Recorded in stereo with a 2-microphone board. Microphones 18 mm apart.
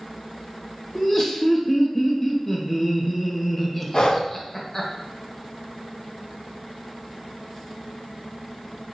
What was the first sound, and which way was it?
Laughter, 30° left (ahead or behind).